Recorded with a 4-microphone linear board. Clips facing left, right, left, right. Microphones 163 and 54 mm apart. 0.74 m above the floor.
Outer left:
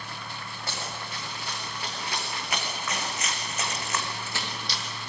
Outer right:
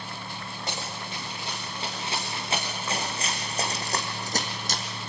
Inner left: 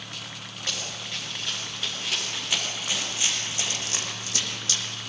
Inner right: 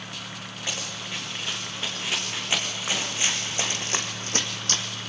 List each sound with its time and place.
0.7 s running footsteps: 20° right (ahead or behind), 6 m; by 4.8 s 45° right (ahead or behind), 2 m